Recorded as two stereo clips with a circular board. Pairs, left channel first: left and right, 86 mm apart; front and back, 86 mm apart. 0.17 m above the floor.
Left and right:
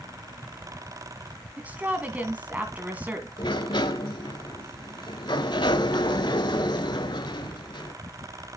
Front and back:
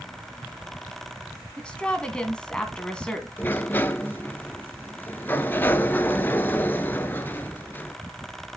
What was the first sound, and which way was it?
A woman speaking, 60° right.